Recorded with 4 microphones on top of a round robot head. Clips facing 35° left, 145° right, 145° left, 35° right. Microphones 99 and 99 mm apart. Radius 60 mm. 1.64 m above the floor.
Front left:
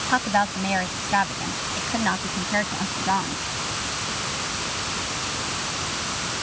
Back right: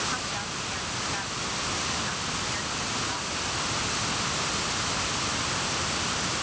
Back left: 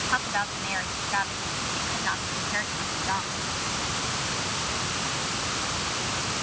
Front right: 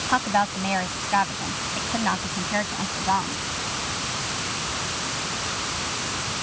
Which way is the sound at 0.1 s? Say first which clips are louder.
Front left 12 dB, front right 8 dB; 15° left.